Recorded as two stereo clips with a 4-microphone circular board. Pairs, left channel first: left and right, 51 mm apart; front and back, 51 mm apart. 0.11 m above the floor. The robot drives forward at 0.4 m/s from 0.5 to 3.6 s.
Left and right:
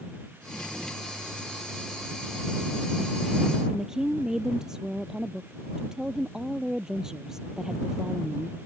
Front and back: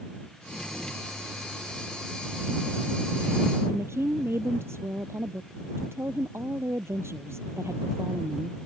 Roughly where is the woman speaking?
Behind.